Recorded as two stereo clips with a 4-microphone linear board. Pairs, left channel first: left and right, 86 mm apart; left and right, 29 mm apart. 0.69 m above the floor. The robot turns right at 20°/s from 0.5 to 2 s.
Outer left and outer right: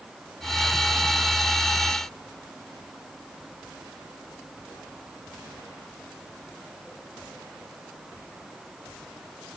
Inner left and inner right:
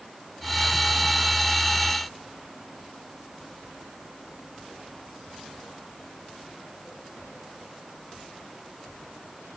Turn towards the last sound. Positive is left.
No sound to turn to.